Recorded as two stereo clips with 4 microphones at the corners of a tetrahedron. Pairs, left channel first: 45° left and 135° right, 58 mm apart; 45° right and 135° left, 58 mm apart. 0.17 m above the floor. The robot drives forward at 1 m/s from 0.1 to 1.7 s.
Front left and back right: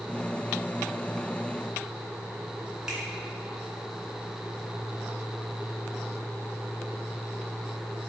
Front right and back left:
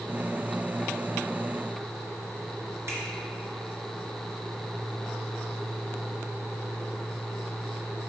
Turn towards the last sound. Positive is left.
turn(degrees=150)